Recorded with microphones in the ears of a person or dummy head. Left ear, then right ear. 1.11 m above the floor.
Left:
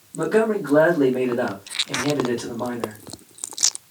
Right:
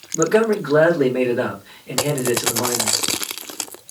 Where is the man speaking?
25° right (ahead or behind), 2 m.